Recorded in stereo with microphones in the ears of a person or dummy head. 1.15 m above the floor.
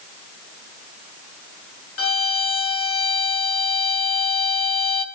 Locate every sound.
2.0 s a violin: 70° left (ahead or behind), 1.5 m